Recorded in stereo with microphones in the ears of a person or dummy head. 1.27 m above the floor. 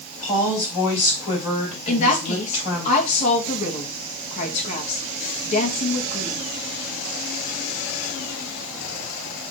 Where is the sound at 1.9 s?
35° left (ahead or behind), 1.7 m.